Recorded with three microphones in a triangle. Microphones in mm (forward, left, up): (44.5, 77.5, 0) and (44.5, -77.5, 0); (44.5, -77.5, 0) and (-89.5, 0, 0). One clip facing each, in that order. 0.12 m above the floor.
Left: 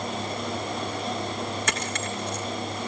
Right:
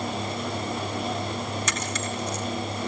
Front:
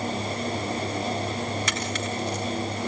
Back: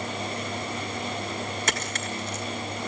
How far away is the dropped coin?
About 3 m.